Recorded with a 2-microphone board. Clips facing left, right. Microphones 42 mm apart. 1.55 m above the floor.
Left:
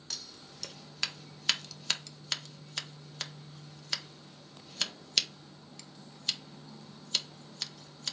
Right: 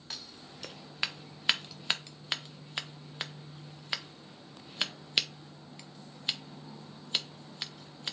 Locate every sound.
0.1 s scissors: 20° right (ahead or behind), 0.6 m